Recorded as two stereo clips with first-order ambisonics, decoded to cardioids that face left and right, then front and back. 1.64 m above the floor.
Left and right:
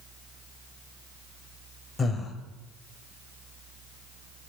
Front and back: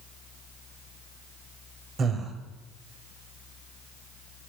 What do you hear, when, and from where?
2.0 s breathing: 140° left, 1.5 m